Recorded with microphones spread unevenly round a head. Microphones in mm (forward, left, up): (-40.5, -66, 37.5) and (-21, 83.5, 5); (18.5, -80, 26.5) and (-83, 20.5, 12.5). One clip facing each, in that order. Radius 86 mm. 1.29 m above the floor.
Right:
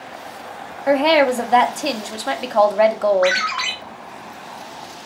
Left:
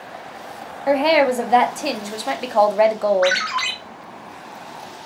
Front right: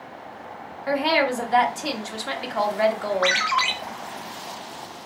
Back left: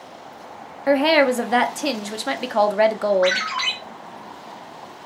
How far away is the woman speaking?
About 0.8 m.